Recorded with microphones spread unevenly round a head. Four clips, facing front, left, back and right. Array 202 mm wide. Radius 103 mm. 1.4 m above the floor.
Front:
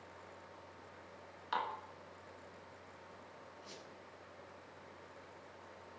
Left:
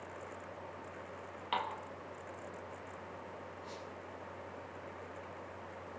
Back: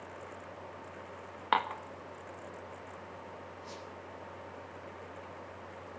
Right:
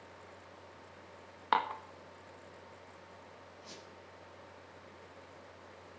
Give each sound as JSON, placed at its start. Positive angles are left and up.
{"t": 1.5, "sound": "dishes clattering", "azimuth_deg": -150, "distance_m": 1.6}
{"t": 3.6, "sound": "a squeak", "azimuth_deg": -90, "distance_m": 7.5}